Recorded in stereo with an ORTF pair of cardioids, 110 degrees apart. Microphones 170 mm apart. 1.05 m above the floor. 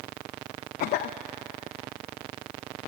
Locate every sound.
0.8 s a cough: 65° left, 0.7 m